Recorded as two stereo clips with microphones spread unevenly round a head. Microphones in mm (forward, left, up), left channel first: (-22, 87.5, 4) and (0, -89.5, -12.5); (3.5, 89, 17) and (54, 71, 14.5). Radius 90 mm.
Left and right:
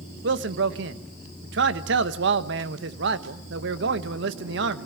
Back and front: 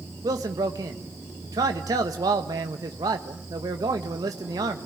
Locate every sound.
0.2 s a man speaking: 50° right, 1.4 m